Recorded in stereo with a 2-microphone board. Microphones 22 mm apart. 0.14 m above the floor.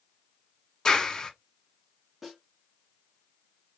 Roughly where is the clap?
Left.